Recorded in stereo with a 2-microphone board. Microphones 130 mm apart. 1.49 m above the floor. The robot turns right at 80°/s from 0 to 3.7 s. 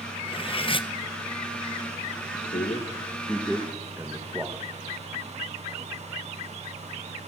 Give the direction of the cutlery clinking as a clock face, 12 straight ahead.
10 o'clock.